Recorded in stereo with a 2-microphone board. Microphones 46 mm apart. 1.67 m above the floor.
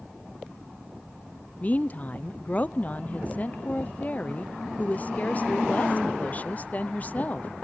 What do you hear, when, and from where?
1.6 s a woman speaking: 30° left (ahead or behind), 0.6 m